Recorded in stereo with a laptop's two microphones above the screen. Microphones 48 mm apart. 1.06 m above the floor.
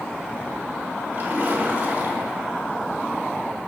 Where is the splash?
45° right (ahead or behind), 4 m.